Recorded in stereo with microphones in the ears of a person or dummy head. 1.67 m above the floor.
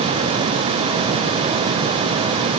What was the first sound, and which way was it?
Only background noise.